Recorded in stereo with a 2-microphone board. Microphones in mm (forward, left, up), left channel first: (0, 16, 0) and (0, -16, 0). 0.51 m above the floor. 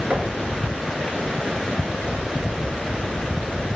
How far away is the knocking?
About 8 m.